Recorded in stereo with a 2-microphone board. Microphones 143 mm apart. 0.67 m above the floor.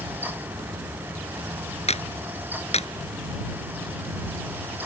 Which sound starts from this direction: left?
A clap, at 1.9 s.